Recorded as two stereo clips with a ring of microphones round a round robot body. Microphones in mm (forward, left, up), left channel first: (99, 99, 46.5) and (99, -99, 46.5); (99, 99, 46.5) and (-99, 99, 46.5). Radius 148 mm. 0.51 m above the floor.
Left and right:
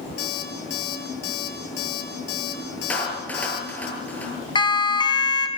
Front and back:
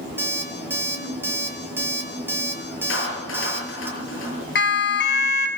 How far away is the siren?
About 4 m.